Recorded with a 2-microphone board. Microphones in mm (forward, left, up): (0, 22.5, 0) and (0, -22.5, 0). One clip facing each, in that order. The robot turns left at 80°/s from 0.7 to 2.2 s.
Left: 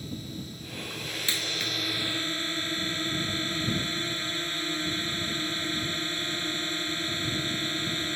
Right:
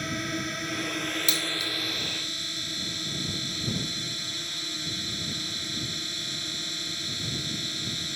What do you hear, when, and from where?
0.0 s a drone: 90° right; by 8.2 s 150° left
1.3 s a dropped coin: 25° left (ahead or behind); by 1.7 s 55° left (ahead or behind)